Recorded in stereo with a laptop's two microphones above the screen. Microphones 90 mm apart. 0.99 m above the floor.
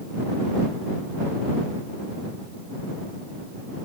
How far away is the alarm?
No alarm in this recording.